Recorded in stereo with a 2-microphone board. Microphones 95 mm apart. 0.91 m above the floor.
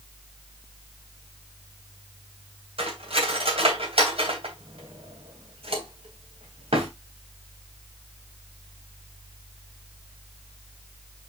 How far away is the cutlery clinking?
About 3 m.